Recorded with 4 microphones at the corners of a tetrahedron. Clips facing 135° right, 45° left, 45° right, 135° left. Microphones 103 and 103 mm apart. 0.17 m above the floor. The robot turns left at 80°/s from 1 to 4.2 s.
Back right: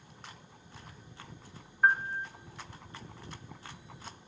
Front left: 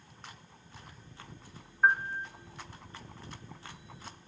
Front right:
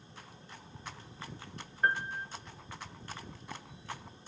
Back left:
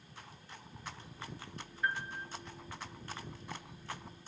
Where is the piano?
40° right, 0.9 m; by 2.3 s 75° right, 0.9 m.